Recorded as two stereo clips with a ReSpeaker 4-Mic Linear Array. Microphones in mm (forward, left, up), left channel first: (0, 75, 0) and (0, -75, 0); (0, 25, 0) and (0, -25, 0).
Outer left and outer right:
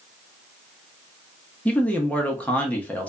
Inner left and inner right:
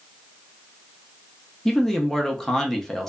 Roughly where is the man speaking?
Centre.